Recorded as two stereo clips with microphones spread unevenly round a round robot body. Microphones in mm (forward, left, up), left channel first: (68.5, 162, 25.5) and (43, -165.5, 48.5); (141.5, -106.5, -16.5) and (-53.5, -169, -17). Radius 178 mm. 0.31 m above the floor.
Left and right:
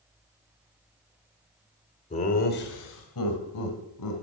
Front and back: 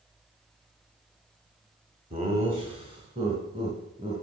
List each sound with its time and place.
2.1 s laughter: 145° left, 1.3 m; by 4.2 s 120° left, 3 m